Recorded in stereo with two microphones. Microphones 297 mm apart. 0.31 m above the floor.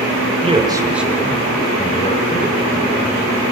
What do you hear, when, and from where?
0.4 s a man speaking: 20° right (ahead or behind), 0.9 m; by 3.4 s 35° left (ahead or behind), 2.0 m